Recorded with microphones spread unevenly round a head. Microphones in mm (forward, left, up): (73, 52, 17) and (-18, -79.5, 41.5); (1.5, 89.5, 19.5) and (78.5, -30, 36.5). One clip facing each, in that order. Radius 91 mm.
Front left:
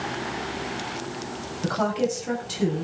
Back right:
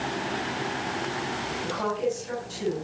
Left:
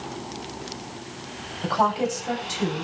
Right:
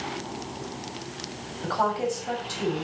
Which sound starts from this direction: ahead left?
A woman speaking, at 1.6 s.